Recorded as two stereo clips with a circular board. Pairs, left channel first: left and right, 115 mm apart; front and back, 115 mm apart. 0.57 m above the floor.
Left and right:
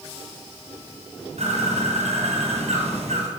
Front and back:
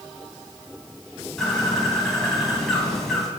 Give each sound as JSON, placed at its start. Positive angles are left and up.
{"t": 1.4, "sound": "a bird", "azimuth_deg": -85, "distance_m": 2.5}